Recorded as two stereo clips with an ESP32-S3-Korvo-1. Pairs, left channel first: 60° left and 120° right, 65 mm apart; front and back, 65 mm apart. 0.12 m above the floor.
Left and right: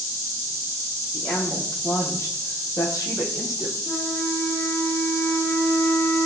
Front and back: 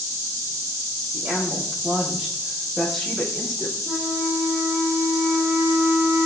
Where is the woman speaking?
105° left, 4 m; by 3.8 s 75° left, 4 m.